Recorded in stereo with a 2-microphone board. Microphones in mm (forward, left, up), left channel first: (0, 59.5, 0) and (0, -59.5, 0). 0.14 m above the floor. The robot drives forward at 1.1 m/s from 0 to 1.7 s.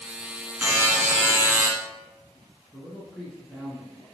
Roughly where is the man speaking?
Centre.